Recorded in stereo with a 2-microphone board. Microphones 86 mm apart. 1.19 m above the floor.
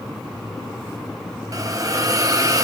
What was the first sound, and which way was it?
A hiss, 40° right (ahead or behind).